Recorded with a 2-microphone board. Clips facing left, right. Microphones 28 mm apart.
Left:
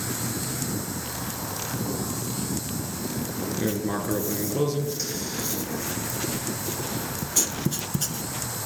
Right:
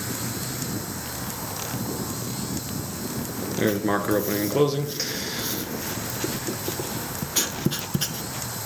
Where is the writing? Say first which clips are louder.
Right 6 dB; 35° right (ahead or behind), 0.8 m.